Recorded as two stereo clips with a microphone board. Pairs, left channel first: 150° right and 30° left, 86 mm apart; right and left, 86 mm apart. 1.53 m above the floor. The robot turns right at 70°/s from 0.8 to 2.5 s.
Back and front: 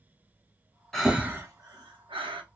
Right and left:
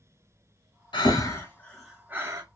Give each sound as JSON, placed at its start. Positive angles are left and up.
{"t": 0.9, "sound": "breathing", "azimuth_deg": -65, "distance_m": 0.7}